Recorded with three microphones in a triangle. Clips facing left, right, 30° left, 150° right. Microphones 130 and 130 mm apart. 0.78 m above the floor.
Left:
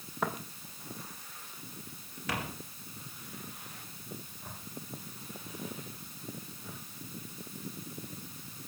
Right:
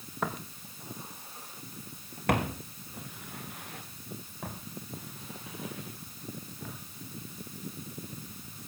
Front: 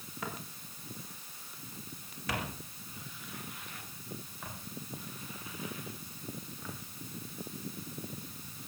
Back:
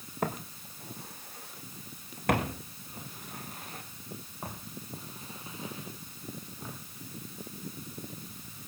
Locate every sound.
0.2 s footsteps: straight behind, 1.9 m; by 6.8 s 85° right, 6 m